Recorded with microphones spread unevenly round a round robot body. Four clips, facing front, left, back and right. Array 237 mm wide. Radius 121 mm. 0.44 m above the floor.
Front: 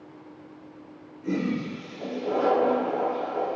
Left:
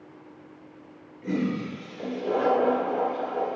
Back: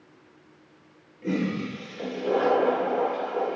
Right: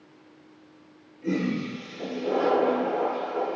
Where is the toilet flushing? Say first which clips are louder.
Right 1 dB, even; straight behind, 2.5 m.